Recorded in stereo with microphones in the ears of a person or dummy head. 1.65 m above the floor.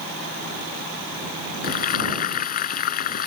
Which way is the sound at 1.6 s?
50° left (ahead or behind).